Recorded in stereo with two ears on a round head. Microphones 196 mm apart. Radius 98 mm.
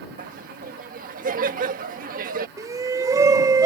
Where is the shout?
15° right (ahead or behind).